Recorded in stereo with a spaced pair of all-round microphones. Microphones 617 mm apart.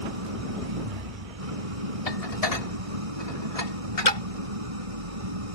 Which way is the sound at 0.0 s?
70° right (ahead or behind).